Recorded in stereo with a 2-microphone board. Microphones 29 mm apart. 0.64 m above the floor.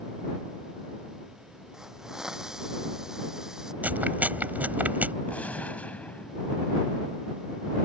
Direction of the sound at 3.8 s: 75° right (ahead or behind).